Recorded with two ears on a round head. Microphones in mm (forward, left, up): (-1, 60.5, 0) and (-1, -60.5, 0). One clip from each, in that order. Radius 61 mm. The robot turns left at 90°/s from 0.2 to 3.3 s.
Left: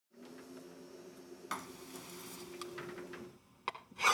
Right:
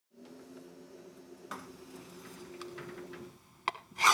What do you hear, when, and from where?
1.5 s writing: 45° left (ahead or behind), 1.1 m; by 4.1 s 35° right (ahead or behind), 1.1 m